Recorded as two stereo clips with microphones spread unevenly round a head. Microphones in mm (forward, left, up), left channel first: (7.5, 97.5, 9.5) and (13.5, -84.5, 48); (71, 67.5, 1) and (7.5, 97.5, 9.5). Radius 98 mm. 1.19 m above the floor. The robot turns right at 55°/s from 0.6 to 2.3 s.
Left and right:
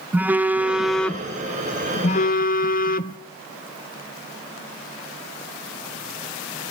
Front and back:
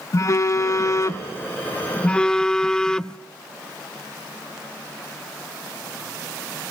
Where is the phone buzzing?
35° right, 0.5 m; by 3.2 s 60° left, 0.5 m.